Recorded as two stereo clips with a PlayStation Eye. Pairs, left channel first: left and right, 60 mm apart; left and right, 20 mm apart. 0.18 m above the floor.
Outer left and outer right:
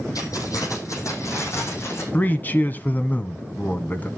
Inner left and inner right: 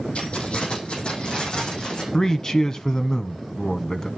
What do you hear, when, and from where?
0.1 s keys jangling: 75° left (ahead or behind), 4.5 m; by 2.0 s 45° left (ahead or behind), 5.5 m
2.1 s a man speaking: 30° left (ahead or behind), 1.2 m